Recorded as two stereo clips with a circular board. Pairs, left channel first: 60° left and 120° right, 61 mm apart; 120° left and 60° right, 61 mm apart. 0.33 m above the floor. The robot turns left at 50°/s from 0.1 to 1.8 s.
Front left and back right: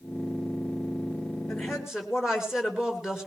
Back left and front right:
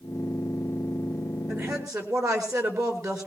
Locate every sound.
1.5 s a woman speaking: 20° right, 5 m; by 3.3 s 35° right, 5 m